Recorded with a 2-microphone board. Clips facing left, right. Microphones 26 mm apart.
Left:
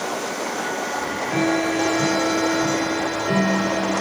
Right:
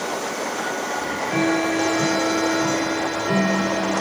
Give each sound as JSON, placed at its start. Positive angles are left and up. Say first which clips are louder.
{"t": 1.0, "sound": "ticking", "louder": "even", "side_deg": -5, "distance_m": 2.0}